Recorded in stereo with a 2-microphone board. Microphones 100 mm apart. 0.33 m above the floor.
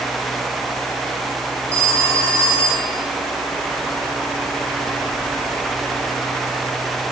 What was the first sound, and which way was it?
A phone ringing, 80° left.